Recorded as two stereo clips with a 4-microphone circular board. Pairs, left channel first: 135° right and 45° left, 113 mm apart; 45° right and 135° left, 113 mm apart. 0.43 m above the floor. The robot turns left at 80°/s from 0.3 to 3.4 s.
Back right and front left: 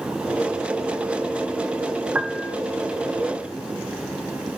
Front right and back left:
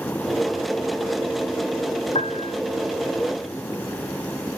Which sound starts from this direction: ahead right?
A piano, at 2.1 s.